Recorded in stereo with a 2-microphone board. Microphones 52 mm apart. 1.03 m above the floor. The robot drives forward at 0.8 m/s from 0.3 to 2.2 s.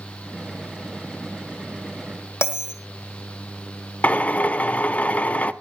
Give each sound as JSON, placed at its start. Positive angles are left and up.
{"t": 2.4, "sound": "a bell", "side_deg": 55, "distance_m": 1.6}
{"t": 4.0, "sound": "a drill", "side_deg": 30, "distance_m": 0.6}